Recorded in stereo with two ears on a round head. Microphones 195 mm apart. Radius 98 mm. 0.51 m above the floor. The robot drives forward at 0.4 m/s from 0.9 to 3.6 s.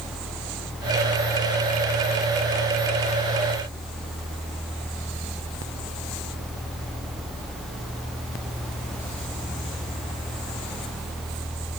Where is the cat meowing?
I don't hear a cat meowing.